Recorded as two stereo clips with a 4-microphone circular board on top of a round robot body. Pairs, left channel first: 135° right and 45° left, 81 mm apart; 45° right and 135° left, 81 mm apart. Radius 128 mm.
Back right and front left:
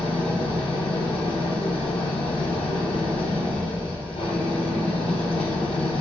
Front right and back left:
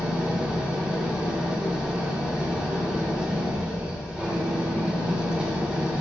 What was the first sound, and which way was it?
An engine running, 150° right.